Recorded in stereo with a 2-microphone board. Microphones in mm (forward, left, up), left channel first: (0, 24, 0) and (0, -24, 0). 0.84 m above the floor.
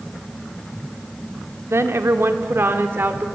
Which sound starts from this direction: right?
A woman speaking, at 1.7 s.